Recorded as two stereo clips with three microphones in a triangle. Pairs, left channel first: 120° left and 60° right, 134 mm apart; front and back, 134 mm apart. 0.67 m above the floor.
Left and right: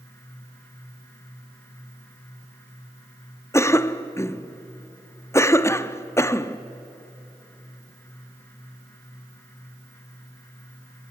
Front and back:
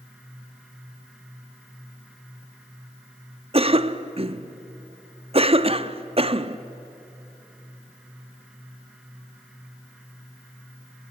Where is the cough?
Straight behind, 0.9 m.